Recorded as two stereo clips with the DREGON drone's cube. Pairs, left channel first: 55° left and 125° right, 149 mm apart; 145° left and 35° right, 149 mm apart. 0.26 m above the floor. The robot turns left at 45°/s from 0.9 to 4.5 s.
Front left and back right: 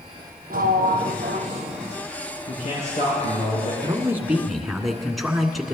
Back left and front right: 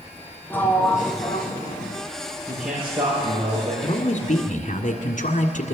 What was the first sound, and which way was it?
A sliding door, 135° right.